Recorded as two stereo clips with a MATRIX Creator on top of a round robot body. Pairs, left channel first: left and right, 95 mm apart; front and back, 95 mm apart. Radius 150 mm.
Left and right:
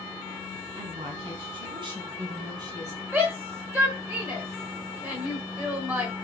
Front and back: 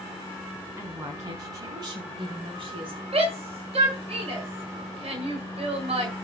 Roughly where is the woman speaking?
Behind right.